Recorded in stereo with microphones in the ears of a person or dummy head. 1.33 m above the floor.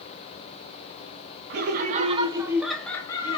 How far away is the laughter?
About 0.8 m.